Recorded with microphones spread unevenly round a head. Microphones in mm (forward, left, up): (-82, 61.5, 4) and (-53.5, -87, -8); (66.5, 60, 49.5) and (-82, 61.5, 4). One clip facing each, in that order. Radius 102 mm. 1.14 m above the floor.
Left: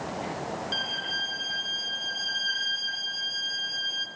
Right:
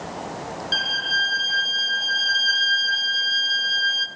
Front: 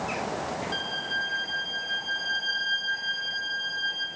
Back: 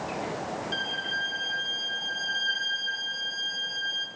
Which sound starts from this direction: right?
A violin, at 0.7 s.